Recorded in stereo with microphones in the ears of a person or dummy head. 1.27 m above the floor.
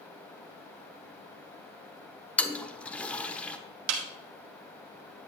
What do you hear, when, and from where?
2.4 s a toilet flushing: 5° left (ahead or behind), 0.7 m
3.9 s a snare drum: 75° right (ahead or behind), 1.1 m